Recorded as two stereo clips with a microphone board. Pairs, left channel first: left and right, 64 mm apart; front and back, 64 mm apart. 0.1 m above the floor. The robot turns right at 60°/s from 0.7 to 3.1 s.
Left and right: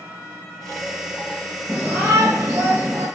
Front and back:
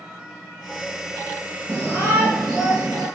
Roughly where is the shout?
Behind.